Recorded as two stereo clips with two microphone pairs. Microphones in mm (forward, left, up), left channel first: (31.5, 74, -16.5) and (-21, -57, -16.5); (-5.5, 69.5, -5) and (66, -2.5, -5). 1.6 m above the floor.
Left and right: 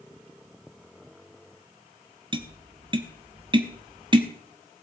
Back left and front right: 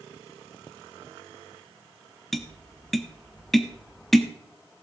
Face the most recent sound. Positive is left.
turn(degrees=-140)